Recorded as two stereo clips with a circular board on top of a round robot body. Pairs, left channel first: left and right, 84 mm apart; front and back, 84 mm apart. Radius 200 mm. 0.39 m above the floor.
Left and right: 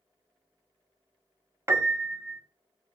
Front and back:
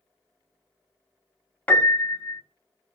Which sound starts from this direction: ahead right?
A piano, at 1.7 s.